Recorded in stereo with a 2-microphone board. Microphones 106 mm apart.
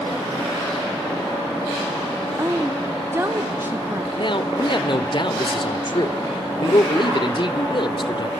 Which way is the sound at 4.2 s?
50° left (ahead or behind).